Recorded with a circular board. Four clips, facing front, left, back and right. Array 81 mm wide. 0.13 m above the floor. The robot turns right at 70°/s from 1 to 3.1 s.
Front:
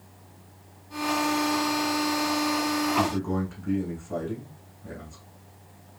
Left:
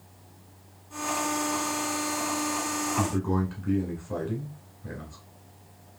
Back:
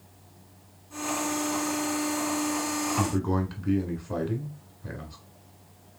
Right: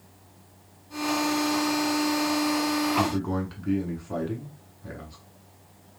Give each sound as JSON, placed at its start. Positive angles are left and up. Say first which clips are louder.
{"t": 3.0, "sound": "a man speaking", "louder": "right 1 dB, front 1 dB", "azimuth_deg": -160, "distance_m": 1.0}